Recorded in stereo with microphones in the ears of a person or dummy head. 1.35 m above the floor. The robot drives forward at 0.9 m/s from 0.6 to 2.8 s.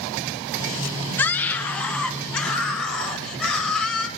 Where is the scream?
15° left (ahead or behind), 1.2 m; by 4.1 s 5° left (ahead or behind), 2.5 m.